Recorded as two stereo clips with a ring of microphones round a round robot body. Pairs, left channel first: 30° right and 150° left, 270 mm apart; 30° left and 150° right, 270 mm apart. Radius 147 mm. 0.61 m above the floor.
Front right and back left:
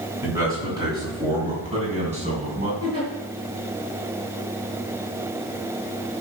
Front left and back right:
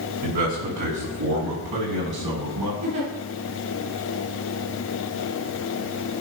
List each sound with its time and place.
0.2 s a man speaking: 130° right, 6.5 m; by 2.7 s 150° right, 5.5 m
2.8 s a giggle: 135° right, 5 m